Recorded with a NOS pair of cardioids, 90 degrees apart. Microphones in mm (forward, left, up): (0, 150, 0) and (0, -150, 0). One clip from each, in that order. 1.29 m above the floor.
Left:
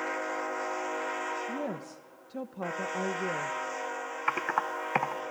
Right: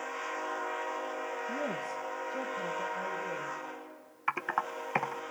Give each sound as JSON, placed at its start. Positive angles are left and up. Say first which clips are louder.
{"t": 1.5, "sound": "a woman speaking", "louder": "right 1 dB", "azimuth_deg": 15, "distance_m": 1.3}
{"t": 4.3, "sound": "typing on a keyboard", "louder": "left 2 dB", "azimuth_deg": 10, "distance_m": 1.0}